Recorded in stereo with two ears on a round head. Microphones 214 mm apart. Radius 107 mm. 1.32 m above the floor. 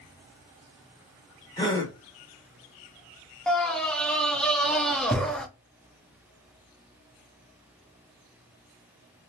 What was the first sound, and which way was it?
A gasp, 15° left (ahead or behind).